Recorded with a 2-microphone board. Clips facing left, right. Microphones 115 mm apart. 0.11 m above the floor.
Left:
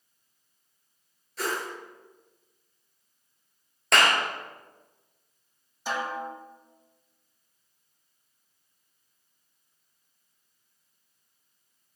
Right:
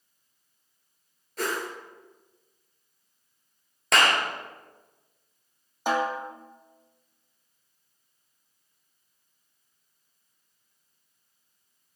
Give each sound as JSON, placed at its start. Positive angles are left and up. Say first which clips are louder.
{"t": 1.4, "sound": "a whoosh", "louder": "right 1 dB", "side_deg": -50, "distance_m": 1.9}
{"t": 3.9, "sound": "a clap", "louder": "even", "side_deg": 0, "distance_m": 1.6}
{"t": 5.9, "sound": "a snare drum", "louder": "right 5 dB", "side_deg": -55, "distance_m": 1.1}